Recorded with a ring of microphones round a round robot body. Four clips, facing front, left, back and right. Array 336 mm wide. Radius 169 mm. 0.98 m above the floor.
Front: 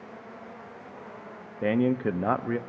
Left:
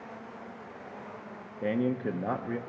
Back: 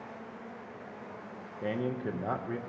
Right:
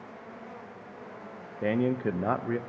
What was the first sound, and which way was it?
A man speaking, 25° right.